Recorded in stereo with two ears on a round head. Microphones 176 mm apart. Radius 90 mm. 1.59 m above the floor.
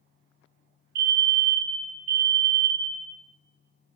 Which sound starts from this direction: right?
A fire alarm, at 0.9 s.